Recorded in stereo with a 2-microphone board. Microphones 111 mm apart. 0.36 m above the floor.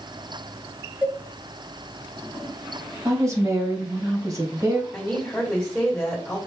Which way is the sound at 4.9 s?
5° left (ahead or behind).